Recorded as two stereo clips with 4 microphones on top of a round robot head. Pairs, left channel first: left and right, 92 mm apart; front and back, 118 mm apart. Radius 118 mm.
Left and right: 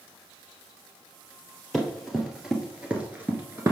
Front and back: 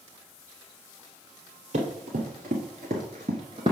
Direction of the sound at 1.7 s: Straight behind.